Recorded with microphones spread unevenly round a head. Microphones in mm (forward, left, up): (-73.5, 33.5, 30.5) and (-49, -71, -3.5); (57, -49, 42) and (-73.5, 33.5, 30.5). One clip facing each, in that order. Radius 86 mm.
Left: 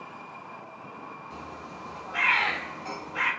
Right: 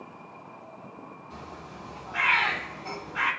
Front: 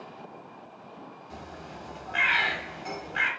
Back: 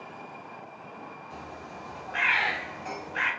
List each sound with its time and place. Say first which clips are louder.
1.3 s a bird: left 2 dB, front 1 dB; 20° left, 0.8 m